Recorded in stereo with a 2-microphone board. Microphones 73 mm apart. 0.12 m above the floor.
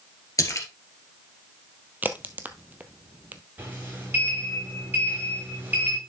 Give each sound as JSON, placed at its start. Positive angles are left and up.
{"t": 0.4, "sound": "a splash", "side_deg": 50, "distance_m": 1.8}
{"t": 2.0, "sound": "a crack", "side_deg": -25, "distance_m": 0.8}
{"t": 3.6, "sound": "a sliding door", "side_deg": -25, "distance_m": 7.0}